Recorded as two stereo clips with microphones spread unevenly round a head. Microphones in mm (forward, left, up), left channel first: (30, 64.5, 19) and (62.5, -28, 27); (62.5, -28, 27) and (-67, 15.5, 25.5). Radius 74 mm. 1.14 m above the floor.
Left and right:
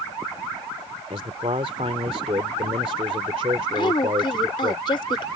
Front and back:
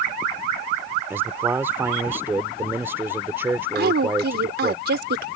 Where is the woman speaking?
165° left.